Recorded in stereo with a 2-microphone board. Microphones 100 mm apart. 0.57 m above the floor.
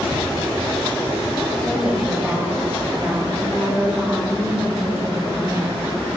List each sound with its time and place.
1.6 s a woman speaking: centre (ahead or behind), 2.0 m; by 5.8 s 30° right (ahead or behind), 5 m